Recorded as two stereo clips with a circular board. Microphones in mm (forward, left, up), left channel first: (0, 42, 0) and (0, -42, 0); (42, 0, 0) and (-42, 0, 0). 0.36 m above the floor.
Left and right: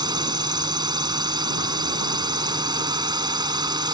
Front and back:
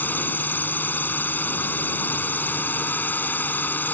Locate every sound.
0.0 s a drone: 65° right